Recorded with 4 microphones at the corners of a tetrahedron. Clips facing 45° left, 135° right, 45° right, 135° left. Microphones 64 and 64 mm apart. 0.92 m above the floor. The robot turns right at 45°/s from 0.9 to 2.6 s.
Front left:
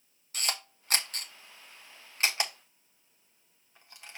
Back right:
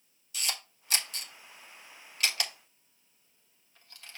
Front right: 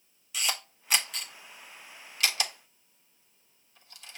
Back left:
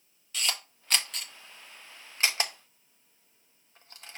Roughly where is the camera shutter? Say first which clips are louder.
Front left 2 dB, even; ahead left.